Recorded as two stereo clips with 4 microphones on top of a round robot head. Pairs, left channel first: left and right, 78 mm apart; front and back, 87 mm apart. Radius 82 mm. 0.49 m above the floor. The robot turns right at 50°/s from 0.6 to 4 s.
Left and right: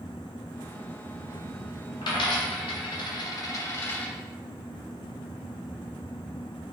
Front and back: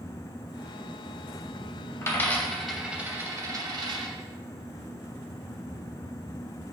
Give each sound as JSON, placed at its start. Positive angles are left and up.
{"t": 2.0, "sound": "a dropped coin", "azimuth_deg": 55, "distance_m": 0.7}